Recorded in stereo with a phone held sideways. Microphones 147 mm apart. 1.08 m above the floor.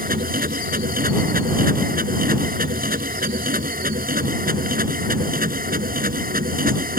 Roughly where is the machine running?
Right.